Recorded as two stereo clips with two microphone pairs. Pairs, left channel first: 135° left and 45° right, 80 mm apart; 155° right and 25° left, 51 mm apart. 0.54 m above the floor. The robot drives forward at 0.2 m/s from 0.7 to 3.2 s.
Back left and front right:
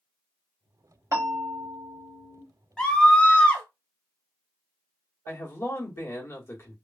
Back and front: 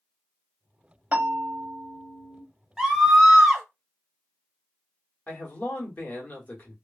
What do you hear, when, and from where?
1.1 s a bell: 20° right, 1.1 m; by 2.4 s 35° right, 0.9 m
2.8 s a scream: 80° left, 0.7 m; by 3.6 s 100° left, 0.7 m
5.3 s a man speaking: 170° left, 1.0 m